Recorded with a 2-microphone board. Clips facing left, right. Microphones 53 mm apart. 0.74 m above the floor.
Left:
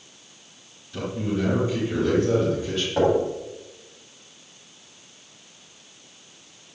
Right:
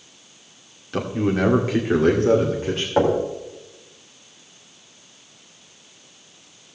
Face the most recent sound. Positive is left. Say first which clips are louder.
# right 1 dB
turn(degrees=-30)  # may be behind; listen again after turning